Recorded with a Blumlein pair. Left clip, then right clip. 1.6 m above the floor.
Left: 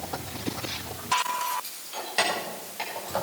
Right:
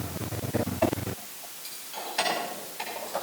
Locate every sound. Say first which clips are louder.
1.6 s keys jangling: left 1 dB; 40° left, 4.5 m; by 3.2 s 15° left, 5.5 m